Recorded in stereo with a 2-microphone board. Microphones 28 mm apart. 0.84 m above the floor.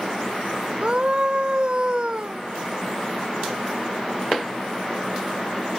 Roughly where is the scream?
Right.